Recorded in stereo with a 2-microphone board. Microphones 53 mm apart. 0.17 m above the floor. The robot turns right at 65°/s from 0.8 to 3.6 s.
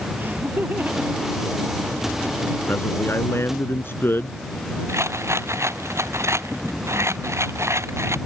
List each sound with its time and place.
0.2 s laughter: 40° right (ahead or behind); by 2.3 s 45° left (ahead or behind)
2.7 s a man speaking: 55° left; by 4.4 s 115° left
4.9 s a rattle: 55° right (ahead or behind)